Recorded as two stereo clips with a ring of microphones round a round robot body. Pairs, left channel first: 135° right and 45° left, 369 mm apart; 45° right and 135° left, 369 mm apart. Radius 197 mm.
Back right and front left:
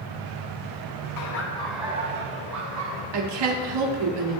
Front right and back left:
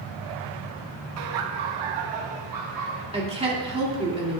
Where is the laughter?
175° right, 0.7 m; by 3.0 s 90° left, 1.7 m.